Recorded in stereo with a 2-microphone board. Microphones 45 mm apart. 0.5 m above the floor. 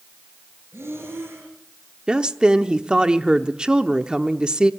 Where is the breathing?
70° right (ahead or behind), 5 m.